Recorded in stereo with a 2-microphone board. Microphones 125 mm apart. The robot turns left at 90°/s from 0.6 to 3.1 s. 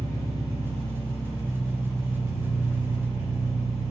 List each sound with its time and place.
0.0 s an engine running: 85° right, 1.8 m; by 3.9 s 50° left, 1.8 m